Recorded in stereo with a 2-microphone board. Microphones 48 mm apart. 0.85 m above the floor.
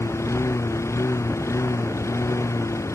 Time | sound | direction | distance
0.0 | a lawn mower | 75° left (ahead or behind) | ?